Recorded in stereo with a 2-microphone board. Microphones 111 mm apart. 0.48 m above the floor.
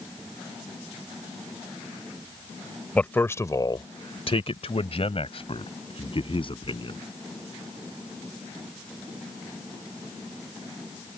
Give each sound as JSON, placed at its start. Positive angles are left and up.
{"t": 3.0, "sound": "a man speaking", "side_deg": 15}